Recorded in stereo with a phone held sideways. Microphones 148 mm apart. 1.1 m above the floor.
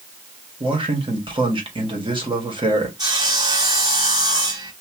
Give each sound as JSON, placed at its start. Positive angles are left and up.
{"t": 0.6, "sound": "a man speaking", "side_deg": -35, "distance_m": 1.5}
{"t": 3.0, "sound": "sawing", "side_deg": -25, "distance_m": 1.0}